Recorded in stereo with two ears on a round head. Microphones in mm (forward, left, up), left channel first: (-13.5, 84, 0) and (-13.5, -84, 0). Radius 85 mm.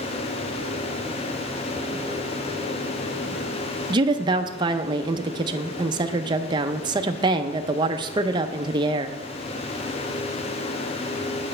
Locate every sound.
3.9 s a woman speaking: 25° right (ahead or behind), 0.5 m